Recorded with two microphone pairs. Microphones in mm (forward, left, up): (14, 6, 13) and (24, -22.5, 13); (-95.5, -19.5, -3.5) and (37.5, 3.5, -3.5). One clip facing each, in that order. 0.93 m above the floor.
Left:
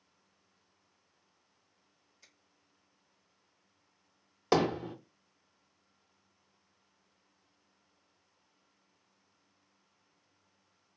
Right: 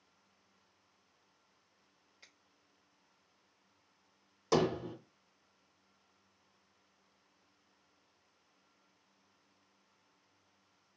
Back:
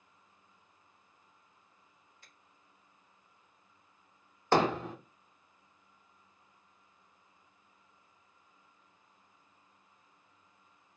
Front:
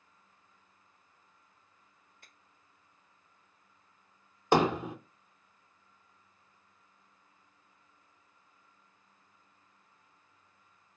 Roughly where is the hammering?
Left.